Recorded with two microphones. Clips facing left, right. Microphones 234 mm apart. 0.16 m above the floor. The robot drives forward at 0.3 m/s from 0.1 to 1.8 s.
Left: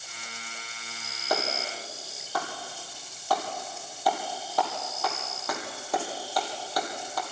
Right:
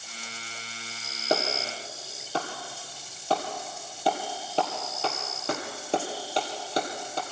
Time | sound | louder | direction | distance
1.3 | a clap | right 3 dB | 25° right (ahead or behind) | 3 m